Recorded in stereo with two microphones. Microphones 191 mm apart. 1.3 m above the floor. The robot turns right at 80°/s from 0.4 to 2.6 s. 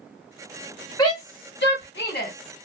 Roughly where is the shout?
Left.